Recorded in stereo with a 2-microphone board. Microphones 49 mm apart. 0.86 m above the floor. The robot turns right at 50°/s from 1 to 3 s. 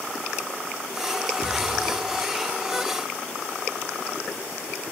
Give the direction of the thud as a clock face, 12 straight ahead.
6 o'clock.